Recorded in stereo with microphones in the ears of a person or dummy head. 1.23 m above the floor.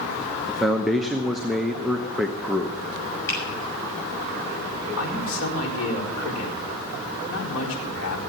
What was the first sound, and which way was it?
A man speaking, centre (ahead or behind).